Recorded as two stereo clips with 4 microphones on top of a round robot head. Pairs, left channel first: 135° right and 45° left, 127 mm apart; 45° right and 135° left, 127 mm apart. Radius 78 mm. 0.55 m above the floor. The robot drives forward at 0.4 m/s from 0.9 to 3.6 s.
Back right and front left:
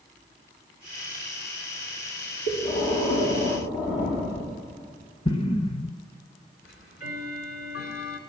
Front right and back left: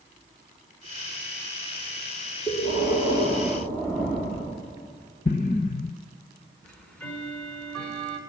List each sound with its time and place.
2.5 s breathing: 150° right, 9.5 m
5.2 s an explosion: 80° right, 0.5 m
6.6 s ticking: 125° right, 2.5 m